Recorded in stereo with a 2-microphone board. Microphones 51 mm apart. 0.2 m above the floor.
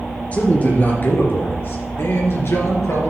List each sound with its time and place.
0.3 s a man speaking: 30° left (ahead or behind), 3.5 m; by 3.1 s 70° left (ahead or behind), 3.5 m